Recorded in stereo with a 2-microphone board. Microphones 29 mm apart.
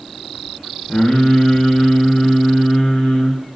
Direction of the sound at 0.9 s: 55° left (ahead or behind).